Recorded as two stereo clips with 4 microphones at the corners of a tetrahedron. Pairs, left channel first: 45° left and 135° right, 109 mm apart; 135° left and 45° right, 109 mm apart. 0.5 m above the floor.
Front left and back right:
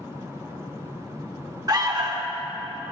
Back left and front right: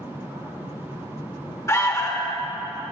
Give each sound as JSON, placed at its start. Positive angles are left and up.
{"t": 1.7, "sound": "an alarm", "azimuth_deg": -175, "distance_m": 1.2}